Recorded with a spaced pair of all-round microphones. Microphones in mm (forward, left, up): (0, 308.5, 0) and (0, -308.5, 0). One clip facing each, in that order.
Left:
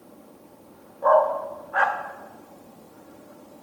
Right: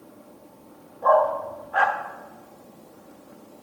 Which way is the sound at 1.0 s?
55° right (ahead or behind).